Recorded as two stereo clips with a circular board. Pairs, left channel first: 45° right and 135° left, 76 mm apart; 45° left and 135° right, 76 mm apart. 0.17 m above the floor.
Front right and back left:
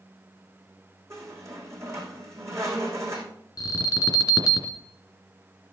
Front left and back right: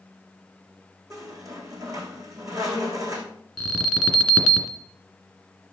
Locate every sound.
1.1 s a squeak: 175° right, 3 m
3.6 s an alarm: 40° right, 2.0 m